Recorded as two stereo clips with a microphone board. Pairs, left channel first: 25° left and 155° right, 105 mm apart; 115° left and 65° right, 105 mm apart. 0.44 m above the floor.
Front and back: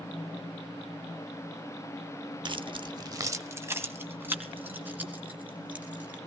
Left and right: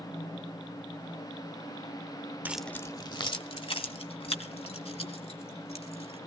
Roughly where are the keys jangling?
Behind right.